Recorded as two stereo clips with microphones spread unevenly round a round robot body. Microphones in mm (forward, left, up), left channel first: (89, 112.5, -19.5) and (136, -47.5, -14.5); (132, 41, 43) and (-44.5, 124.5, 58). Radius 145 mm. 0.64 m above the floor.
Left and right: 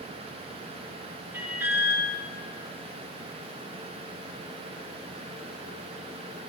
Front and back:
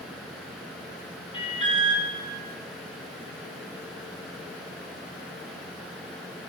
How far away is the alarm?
About 1.6 m.